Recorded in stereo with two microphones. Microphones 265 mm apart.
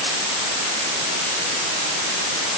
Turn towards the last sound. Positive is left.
No sound to turn to.